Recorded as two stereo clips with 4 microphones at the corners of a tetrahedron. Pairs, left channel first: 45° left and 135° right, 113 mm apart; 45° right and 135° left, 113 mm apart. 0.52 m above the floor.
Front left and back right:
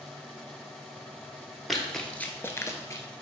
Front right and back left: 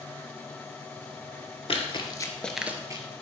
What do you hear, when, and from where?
1.7 s running footsteps: 45° right, 0.8 m; by 3.0 s 95° left, 0.7 m